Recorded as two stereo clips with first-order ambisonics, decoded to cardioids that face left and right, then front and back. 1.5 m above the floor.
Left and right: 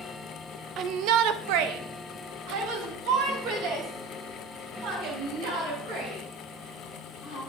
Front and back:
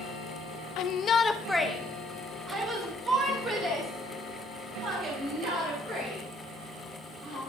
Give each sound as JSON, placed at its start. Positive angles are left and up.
{"t": 0.8, "sound": "a shout", "azimuth_deg": -35, "distance_m": 0.7}